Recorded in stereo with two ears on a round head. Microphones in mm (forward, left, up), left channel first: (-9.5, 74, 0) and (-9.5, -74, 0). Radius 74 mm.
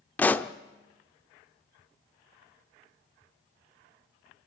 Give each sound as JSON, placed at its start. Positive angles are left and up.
{"t": 0.2, "sound": "a pop", "side_deg": 10, "distance_m": 0.7}